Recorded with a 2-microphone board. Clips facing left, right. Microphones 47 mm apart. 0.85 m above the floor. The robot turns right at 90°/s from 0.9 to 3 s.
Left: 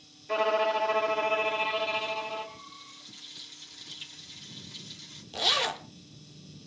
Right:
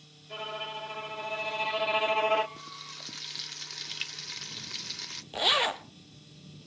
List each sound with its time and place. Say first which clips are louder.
0.3 s a violin: left 12 dB; 100° left, 1.1 m; by 2.5 s 120° right, 1.1 m
2.6 s frying: right 4 dB; 115° right, 0.9 m; by 5.2 s 75° right, 0.9 m
5.3 s a zipper: right 2 dB; 15° right (ahead or behind), 1.2 m